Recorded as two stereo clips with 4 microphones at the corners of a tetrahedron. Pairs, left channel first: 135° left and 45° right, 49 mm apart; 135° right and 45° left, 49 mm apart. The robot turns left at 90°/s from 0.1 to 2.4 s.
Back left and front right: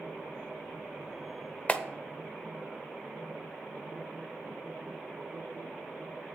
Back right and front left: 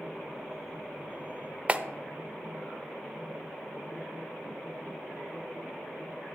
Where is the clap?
90° left, 0.7 m; by 1.8 s 80° left, 0.7 m.